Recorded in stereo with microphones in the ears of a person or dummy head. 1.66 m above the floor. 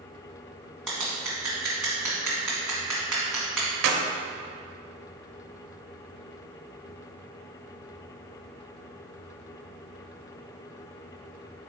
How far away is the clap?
About 0.8 m.